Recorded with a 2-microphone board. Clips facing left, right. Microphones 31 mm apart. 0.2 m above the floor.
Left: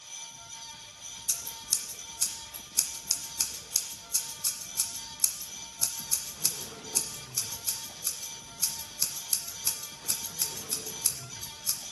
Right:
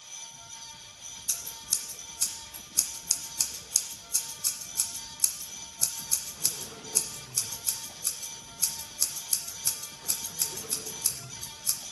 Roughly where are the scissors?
Centre.